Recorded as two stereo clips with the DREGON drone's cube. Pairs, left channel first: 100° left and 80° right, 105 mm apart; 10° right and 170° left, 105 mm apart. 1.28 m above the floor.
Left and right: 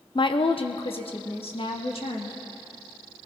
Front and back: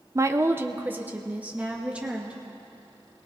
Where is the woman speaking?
115° left, 0.7 m; by 2.4 s 90° left, 2.5 m.